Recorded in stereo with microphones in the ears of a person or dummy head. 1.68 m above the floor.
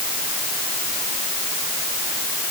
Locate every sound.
Only background noise.